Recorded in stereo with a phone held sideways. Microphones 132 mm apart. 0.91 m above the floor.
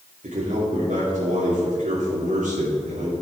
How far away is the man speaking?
About 2.5 m.